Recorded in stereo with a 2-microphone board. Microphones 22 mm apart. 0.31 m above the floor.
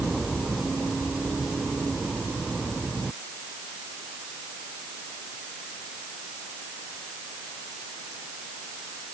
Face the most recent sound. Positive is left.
No sound to turn to.